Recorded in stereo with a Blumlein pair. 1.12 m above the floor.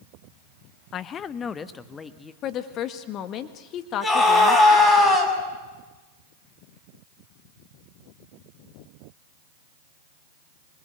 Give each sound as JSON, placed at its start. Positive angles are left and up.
{"t": 0.9, "sound": "a man speaking", "azimuth_deg": 30, "distance_m": 0.7}
{"t": 2.4, "sound": "a woman speaking", "azimuth_deg": 35, "distance_m": 1.6}
{"t": 4.0, "sound": "a scream", "azimuth_deg": 10, "distance_m": 7.5}